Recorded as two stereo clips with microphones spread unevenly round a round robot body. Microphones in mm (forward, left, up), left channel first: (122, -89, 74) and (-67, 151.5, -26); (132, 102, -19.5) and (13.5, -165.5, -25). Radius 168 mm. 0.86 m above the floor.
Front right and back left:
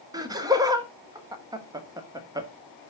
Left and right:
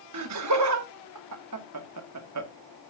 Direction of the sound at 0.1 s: 160° right.